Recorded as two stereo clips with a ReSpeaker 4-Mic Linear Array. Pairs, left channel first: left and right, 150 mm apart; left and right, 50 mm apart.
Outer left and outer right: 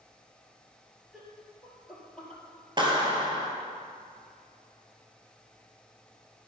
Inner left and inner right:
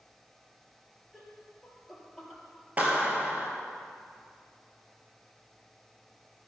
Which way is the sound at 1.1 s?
5° right (ahead or behind).